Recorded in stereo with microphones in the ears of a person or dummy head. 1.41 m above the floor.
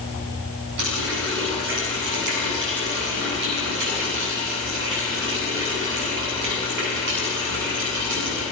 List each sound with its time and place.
0.8 s a running tap: 70° right (ahead or behind), 9.5 m